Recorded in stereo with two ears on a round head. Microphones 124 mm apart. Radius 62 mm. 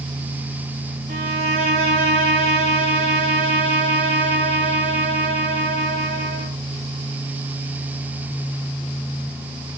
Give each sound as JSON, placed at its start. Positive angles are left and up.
{"t": 1.1, "sound": "a violin", "side_deg": -50, "distance_m": 4.5}